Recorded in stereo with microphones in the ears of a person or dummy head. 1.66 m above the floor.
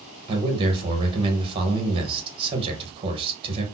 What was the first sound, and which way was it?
A man speaking, 30° right (ahead or behind).